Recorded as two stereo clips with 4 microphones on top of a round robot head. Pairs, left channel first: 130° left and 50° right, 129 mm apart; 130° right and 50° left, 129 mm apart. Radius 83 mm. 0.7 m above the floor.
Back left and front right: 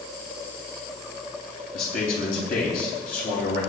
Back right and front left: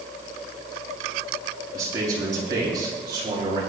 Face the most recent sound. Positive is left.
turn(degrees=110)